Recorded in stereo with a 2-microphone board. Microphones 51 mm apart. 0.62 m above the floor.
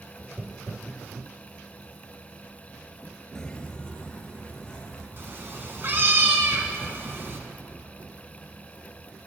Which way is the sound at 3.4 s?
10° left (ahead or behind).